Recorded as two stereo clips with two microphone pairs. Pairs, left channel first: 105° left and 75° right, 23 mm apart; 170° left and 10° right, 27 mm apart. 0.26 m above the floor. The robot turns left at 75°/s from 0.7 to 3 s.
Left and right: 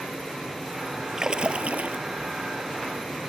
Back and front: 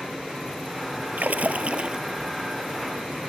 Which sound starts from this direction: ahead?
A splash, at 1.2 s.